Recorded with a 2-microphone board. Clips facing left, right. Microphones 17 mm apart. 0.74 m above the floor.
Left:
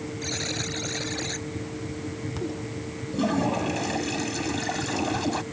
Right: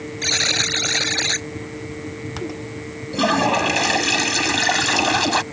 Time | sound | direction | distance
0.2 | a buzzer | 60° right (ahead or behind) | ?
3.1 | a toilet flushing | 75° right (ahead or behind) | ?